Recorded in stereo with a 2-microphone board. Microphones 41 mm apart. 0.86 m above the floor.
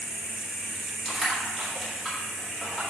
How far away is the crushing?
About 2 m.